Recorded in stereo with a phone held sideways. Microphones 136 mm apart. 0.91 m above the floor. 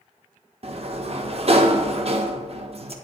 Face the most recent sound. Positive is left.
turn(degrees=-50)  # may be behind; listen again after turning